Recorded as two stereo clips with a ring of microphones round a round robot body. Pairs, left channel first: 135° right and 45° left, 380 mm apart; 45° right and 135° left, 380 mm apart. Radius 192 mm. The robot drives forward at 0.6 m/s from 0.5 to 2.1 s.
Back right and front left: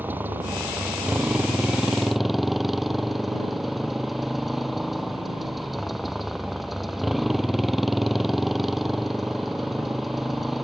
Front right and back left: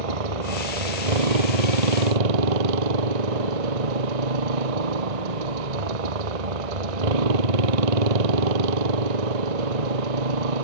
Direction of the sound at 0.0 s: 130° left.